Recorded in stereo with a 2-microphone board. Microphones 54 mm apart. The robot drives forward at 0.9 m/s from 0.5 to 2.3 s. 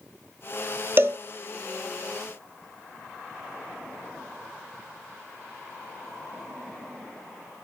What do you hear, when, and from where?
1.0 s a cowbell: 40° right (ahead or behind), 0.6 m; by 1.2 s 50° right (ahead or behind), 0.5 m